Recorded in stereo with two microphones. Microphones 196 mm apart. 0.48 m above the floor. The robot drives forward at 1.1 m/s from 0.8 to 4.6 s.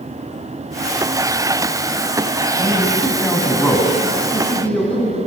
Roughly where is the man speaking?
Centre.